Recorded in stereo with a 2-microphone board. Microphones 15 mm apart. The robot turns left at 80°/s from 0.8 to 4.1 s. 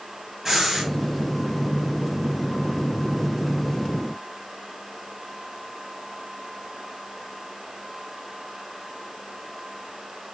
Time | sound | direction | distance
0.5 | breathing | 25° right (ahead or behind) | 8 m